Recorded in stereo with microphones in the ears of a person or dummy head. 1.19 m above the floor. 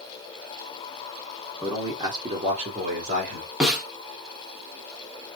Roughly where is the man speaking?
Centre.